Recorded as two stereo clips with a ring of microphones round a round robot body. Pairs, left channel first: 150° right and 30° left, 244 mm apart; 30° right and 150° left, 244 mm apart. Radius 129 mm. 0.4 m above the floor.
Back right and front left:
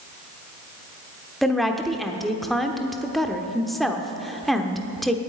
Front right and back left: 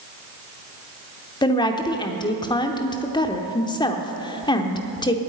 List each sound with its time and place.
1.4 s a woman speaking: 60° right, 0.9 m